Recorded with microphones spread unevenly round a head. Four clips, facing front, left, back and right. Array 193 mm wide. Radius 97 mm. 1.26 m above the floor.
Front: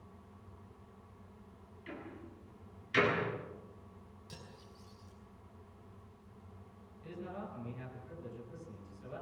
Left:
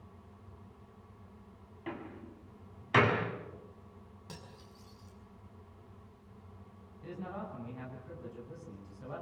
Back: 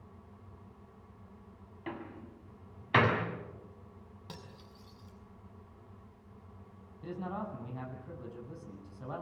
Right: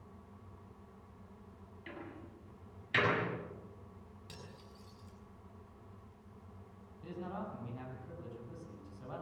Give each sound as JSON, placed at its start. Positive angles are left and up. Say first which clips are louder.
{"t": 1.9, "sound": "a door slam", "louder": "left 5 dB, back 5 dB", "azimuth_deg": 145, "distance_m": 6.0}
{"t": 4.3, "sound": "cutlery clinking", "louder": "left 3 dB, back 4 dB", "azimuth_deg": 160, "distance_m": 7.0}
{"t": 7.0, "sound": "a man speaking", "louder": "left 1 dB, back 6 dB", "azimuth_deg": 180, "distance_m": 9.0}